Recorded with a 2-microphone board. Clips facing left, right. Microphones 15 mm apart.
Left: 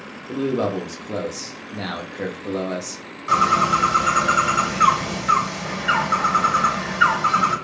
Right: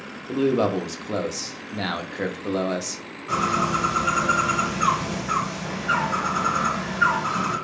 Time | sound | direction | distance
0.3 | a man speaking | 10° right (ahead or behind) | 0.6 m
3.3 | a bird | 80° left | 2.5 m